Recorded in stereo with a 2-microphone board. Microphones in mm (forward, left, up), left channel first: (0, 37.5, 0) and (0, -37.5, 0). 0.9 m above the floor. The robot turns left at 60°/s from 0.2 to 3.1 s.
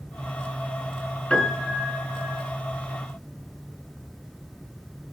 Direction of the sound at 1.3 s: 15° left (ahead or behind).